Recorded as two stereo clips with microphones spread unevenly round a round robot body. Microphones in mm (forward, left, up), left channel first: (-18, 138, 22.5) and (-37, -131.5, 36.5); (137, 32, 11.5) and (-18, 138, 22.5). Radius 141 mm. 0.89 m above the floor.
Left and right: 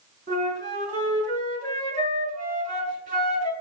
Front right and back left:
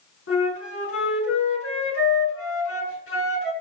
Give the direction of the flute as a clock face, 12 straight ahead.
1 o'clock.